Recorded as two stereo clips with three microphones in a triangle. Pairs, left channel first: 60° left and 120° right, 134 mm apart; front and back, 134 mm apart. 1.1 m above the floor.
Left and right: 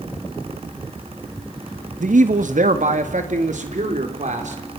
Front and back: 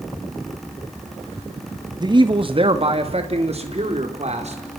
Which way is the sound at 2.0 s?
125° right.